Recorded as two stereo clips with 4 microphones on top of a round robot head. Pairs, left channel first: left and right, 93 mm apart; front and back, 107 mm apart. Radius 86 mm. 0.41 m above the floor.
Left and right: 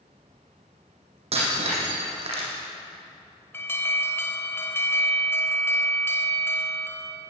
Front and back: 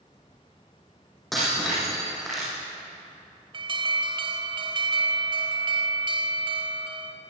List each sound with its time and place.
1.3 s breaking glass: 90° right, 9 m
3.5 s an alarm: 150° left, 3 m